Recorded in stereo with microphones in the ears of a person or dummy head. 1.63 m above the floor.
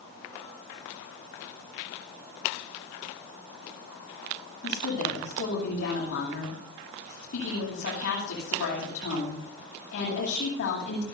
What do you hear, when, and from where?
4.6 s a woman speaking: 55° left (ahead or behind), 9 m